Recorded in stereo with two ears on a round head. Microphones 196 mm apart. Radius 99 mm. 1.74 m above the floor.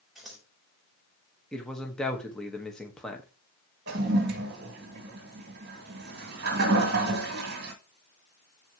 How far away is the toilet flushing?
About 3 m.